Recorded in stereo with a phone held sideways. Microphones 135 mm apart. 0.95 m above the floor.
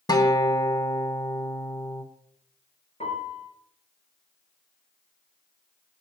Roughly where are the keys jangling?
No keys jangling in this recording.